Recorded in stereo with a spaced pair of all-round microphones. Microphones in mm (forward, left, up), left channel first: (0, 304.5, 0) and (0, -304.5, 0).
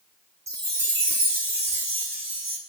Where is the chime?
30° right (ahead or behind), 1.5 m.